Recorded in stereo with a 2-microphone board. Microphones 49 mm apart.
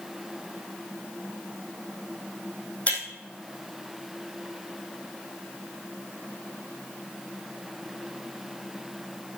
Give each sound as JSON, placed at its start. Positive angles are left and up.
{"t": 2.9, "sound": "breaking glass", "side_deg": 30, "distance_m": 3.0}